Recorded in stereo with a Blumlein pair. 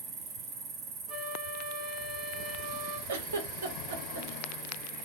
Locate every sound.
0.0 s an insect: 35° right, 1.4 m
1.1 s a flute: 30° right, 1.3 m
3.1 s a giggle: 65° right, 1.1 m